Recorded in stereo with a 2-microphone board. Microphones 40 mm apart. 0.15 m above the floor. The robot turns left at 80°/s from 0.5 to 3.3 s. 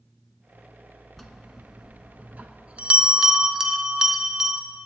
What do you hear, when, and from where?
1.2 s a bell: 10° left, 0.5 m; by 4.6 s 160° right, 0.5 m